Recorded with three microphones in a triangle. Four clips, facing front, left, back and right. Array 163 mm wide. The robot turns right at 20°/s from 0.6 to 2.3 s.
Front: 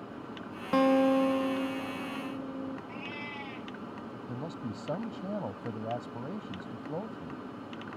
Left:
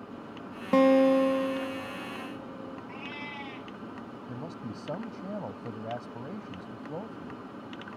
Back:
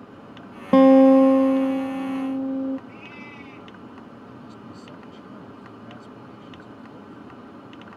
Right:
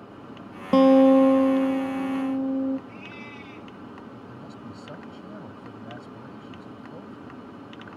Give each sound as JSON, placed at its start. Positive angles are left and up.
{"t": 0.7, "sound": "a guitar", "azimuth_deg": -170}
{"t": 2.9, "sound": "a cat meowing", "azimuth_deg": 60}
{"t": 4.3, "sound": "a man speaking", "azimuth_deg": 35}